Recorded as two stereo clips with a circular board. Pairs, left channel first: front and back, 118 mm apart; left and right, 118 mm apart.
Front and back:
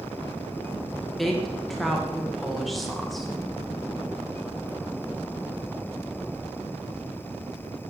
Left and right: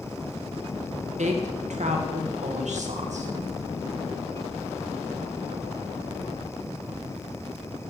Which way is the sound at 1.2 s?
90° right.